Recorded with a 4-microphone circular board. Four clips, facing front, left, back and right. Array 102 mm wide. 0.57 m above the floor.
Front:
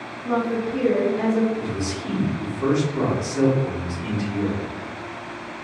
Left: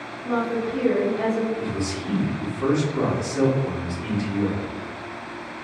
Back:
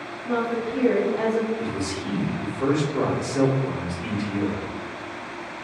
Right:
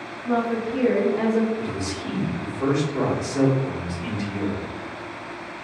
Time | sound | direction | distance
0.2 | a woman speaking | straight ahead | 0.7 m
1.6 | a man speaking | 140° right | 1.4 m